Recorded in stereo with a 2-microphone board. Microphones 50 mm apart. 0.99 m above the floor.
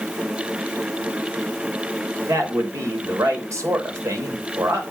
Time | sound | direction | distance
2.3 | a man speaking | 80° right | 3 m